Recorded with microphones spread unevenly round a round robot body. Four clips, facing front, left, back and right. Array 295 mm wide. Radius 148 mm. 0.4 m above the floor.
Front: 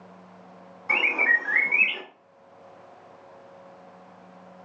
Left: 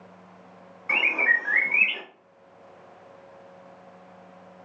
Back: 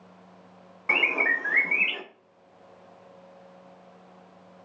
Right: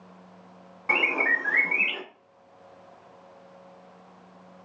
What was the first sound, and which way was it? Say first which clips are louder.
A bird: even, front 1 dB; 130° right.